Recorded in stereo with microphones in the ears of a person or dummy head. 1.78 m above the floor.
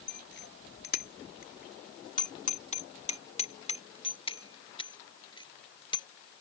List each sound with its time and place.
0.1 s a bicycle bell: 70° left (ahead or behind); by 6.1 s 30° left (ahead or behind)